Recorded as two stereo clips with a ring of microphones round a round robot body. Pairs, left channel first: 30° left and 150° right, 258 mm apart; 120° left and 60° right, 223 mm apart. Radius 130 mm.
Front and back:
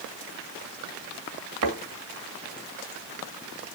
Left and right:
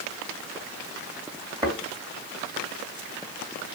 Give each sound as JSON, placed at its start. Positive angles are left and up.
{"t": 1.6, "sound": "a thud", "azimuth_deg": -135, "distance_m": 2.0}